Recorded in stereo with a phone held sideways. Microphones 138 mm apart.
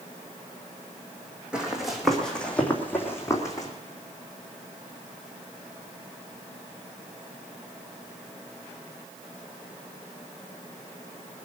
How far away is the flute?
No flute in this recording.